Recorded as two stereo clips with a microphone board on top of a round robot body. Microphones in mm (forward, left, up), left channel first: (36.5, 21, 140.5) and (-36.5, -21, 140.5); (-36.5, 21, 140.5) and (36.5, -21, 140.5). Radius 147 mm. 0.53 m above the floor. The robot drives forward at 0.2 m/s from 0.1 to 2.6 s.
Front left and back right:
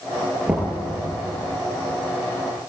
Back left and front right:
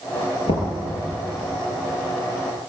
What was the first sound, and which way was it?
Knocking, 135° left.